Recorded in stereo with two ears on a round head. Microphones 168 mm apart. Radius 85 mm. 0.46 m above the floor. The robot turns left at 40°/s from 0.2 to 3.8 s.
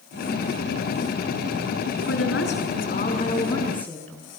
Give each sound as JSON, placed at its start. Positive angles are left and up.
{"t": 2.1, "sound": "a woman speaking", "azimuth_deg": 80, "distance_m": 5.5}